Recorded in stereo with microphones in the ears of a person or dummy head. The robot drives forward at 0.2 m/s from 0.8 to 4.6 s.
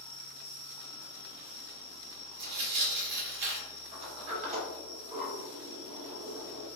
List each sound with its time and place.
0.0 s an insect: 25° left (ahead or behind), 0.9 m; by 6.8 s 15° left (ahead or behind), 1.6 m
2.4 s tearing paper: 60° right (ahead or behind), 1.4 m; by 3.7 s 70° right (ahead or behind), 1.2 m
3.9 s a sliding door: 35° right (ahead or behind), 1.0 m; by 6.7 s 40° right (ahead or behind), 0.9 m